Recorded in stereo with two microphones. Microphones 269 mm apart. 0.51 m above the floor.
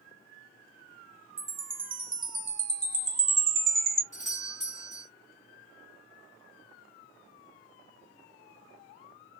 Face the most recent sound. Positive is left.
turn(degrees=25)  # may be behind; listen again after turning